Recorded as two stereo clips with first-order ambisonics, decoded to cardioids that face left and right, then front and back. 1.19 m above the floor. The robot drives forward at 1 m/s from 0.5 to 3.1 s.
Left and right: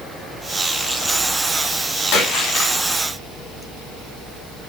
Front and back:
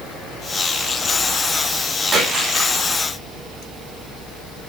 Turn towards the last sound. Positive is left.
turn(degrees=125)